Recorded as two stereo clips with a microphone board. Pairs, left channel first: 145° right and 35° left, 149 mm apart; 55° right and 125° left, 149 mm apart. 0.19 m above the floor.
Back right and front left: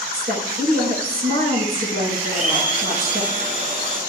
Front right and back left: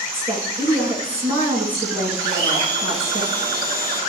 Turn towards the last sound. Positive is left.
turn(degrees=65)